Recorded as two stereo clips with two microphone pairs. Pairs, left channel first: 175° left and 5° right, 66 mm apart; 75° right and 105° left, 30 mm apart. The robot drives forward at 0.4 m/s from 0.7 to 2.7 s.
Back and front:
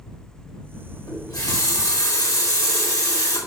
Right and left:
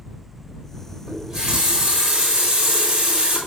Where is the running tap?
Straight behind, 3.5 m.